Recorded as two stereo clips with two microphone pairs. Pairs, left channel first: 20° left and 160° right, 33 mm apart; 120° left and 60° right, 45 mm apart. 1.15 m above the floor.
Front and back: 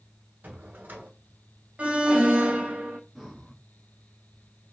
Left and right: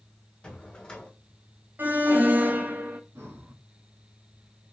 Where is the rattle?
No rattle in this recording.